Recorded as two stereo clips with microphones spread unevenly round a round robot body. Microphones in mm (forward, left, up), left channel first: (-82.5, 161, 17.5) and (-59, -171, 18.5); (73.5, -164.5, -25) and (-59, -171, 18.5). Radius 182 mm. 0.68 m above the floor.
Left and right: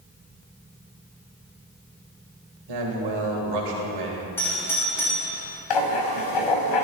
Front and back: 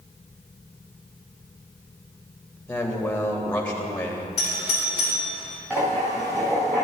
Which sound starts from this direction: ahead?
A doorbell, at 4.4 s.